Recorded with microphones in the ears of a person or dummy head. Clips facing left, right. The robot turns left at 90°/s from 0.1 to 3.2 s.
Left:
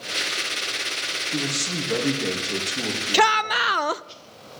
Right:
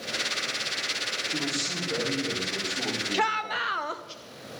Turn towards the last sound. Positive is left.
turn(degrees=60)  # may be behind; listen again after turning